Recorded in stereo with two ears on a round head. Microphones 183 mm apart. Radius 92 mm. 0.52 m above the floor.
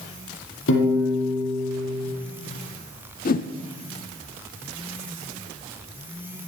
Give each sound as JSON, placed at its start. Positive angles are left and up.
{"t": 0.7, "sound": "a piano", "side_deg": 70, "distance_m": 5.5}
{"t": 3.2, "sound": "a whoosh", "side_deg": 45, "distance_m": 0.9}